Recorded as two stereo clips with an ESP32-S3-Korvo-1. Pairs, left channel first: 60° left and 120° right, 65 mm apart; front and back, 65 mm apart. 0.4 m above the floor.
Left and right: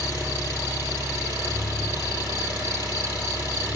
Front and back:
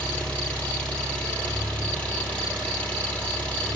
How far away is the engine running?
About 3 m.